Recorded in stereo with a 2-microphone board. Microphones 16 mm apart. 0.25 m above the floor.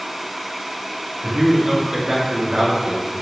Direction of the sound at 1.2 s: 50° right (ahead or behind).